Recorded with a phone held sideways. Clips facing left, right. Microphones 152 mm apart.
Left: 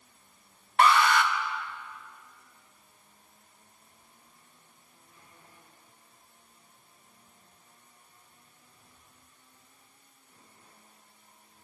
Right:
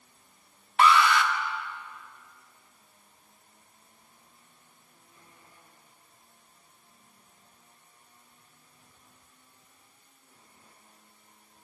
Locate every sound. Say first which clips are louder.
0.8 s an alarm: even; 45° left (ahead or behind), 1.7 m